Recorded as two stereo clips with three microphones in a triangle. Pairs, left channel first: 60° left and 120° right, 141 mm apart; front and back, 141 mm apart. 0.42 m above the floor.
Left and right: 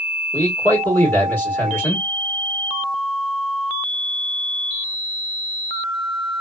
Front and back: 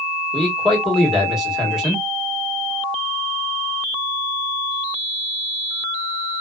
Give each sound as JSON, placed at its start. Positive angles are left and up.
{"t": 0.3, "sound": "a man speaking", "azimuth_deg": 100, "distance_m": 1.4}